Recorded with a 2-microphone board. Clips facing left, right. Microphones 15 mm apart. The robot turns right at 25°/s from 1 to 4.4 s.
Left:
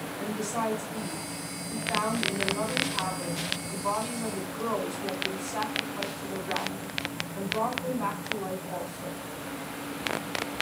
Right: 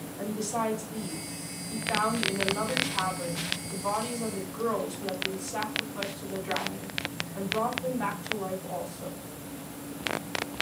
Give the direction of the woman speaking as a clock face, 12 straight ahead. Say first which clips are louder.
Right 1 dB; 4 o'clock.